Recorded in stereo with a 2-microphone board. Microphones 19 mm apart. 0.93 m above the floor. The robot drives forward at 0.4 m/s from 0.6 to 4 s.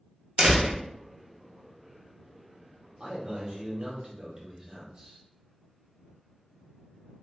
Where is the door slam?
70° right (ahead or behind), 1.0 m; by 0.8 s 75° right (ahead or behind), 1.0 m.